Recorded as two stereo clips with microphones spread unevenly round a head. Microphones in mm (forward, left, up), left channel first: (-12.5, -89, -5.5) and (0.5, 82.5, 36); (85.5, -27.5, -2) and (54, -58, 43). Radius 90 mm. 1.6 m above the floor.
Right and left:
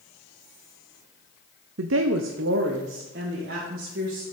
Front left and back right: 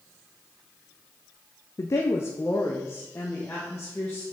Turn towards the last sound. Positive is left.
turn(degrees=120)